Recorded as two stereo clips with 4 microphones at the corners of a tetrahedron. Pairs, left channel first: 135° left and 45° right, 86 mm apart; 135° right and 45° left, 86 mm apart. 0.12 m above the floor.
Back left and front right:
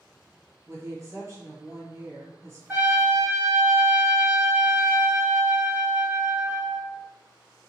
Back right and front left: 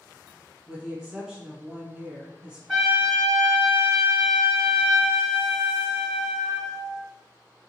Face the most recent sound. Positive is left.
turn(degrees=-55)